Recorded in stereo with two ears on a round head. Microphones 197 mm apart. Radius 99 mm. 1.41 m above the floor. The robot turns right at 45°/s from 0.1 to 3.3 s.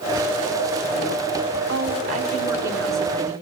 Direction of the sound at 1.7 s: 55° right.